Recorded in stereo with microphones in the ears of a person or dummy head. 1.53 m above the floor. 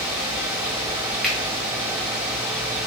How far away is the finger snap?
About 1.8 m.